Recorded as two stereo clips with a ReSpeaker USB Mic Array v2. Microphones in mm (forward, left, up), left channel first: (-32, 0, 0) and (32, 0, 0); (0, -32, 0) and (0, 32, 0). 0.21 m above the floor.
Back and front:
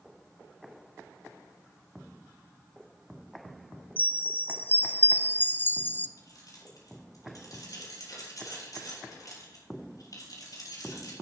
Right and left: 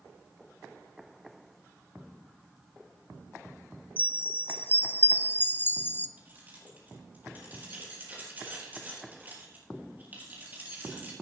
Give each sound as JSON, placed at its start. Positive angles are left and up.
{"t": 4.0, "sound": "a chime", "azimuth_deg": -135, "distance_m": 0.5}
{"t": 6.2, "sound": "keys jangling", "azimuth_deg": 150, "distance_m": 3.5}